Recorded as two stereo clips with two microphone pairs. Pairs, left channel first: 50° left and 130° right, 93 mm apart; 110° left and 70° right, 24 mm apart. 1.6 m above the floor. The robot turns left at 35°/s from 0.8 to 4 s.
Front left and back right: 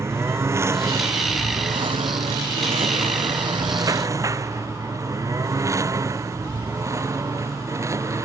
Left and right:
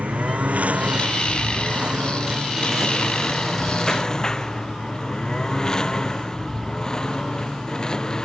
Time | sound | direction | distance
0.0 | a lawn mower | 70° right | ?